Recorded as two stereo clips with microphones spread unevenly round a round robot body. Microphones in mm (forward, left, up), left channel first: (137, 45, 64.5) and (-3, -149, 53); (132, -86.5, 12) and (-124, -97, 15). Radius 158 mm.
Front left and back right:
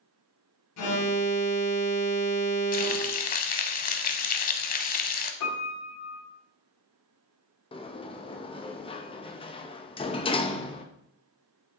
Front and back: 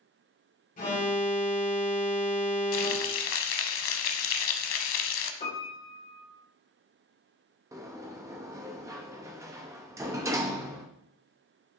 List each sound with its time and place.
0.8 s an alarm: 65° left, 1.9 m
2.7 s frying: 15° left, 0.8 m
5.4 s a piano: 70° left, 2.5 m
7.7 s a sliding door: 110° left, 0.7 m